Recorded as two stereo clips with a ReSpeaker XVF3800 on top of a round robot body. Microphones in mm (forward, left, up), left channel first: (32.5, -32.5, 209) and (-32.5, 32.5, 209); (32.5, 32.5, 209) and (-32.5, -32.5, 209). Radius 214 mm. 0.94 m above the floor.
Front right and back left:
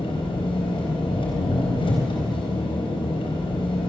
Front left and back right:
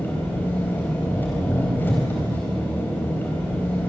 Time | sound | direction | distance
0.0 | an engine running | 25° right | 4 m